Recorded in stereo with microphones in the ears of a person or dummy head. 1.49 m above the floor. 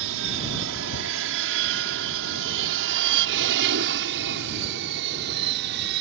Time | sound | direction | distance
0.0 | an aircraft | 70° right (ahead or behind) | ?